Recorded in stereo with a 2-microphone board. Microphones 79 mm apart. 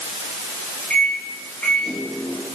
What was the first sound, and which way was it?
A microwave, 15° left (ahead or behind).